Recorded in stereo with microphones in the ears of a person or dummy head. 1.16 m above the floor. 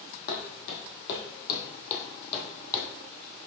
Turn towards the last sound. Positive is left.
turn(degrees=15)  # may be behind; listen again after turning